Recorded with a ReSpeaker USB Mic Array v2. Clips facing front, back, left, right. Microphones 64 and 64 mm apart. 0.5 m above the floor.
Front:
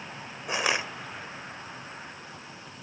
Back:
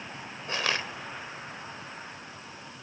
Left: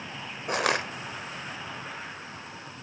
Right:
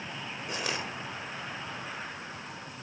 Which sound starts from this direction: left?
Crushing, at 0.5 s.